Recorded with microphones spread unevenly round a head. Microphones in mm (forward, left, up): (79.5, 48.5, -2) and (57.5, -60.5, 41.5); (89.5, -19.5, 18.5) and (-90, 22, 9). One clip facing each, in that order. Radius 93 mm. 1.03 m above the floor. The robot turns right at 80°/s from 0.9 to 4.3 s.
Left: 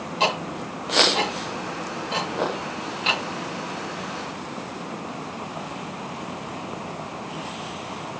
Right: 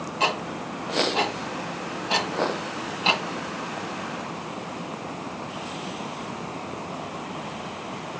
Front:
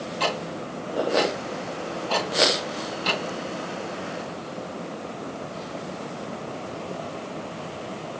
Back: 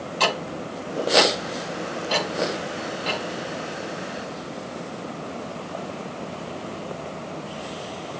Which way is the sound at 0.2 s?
145° left.